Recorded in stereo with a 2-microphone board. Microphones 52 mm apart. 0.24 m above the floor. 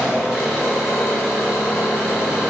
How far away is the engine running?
About 1.9 m.